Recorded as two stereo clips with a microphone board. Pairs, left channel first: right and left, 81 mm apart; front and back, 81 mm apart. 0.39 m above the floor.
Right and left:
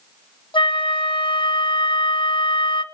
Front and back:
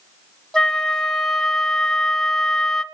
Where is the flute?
85° right, 0.8 m.